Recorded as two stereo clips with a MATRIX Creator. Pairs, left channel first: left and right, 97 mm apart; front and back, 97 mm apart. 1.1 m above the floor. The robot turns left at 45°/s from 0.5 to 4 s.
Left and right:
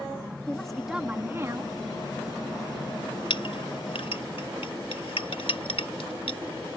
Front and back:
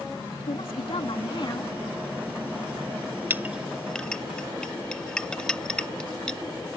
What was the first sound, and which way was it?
A woman speaking, 10° left.